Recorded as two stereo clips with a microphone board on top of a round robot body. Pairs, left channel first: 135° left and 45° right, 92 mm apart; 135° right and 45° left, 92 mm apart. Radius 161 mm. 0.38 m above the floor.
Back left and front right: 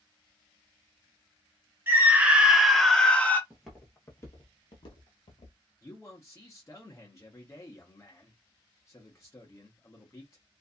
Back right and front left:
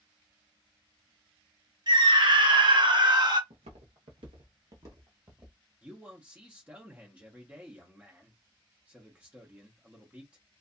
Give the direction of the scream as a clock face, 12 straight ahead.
11 o'clock.